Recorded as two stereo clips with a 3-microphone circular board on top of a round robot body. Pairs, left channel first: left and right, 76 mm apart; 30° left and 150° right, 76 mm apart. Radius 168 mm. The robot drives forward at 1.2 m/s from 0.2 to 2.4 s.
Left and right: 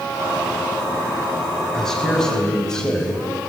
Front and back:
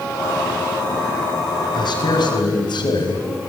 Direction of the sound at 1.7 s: 10° left.